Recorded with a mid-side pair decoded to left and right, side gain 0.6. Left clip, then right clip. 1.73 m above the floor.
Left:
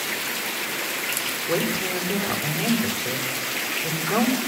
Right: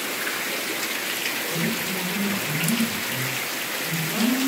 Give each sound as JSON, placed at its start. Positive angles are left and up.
{"t": 1.5, "sound": "a woman speaking", "azimuth_deg": 65, "distance_m": 9.0}